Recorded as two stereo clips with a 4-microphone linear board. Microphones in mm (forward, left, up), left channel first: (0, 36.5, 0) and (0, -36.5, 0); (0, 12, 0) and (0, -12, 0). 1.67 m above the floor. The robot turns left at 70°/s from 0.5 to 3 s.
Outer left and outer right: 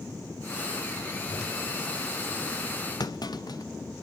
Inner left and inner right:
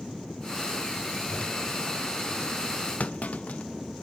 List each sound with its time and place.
1.3 s a whoosh: 85° left, 4.5 m; by 1.5 s 70° left (ahead or behind), 4.5 m
3.0 s a clunk: 60° left (ahead or behind), 0.9 m